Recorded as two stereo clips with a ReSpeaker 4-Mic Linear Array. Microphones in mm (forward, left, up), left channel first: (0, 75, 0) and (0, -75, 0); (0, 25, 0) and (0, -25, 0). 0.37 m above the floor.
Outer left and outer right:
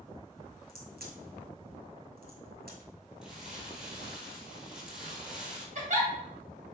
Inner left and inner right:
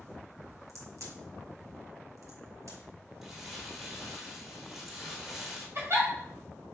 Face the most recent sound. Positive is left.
turn(degrees=-55)  # may be behind; listen again after turning